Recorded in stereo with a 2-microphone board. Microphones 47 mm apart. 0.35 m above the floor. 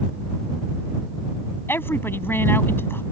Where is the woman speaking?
55° left (ahead or behind).